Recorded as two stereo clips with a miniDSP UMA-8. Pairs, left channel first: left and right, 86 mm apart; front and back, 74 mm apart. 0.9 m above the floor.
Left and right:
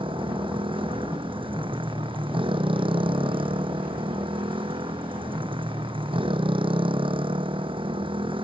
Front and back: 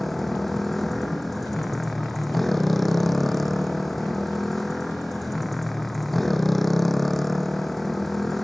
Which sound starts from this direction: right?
A motorcycle, at 0.0 s.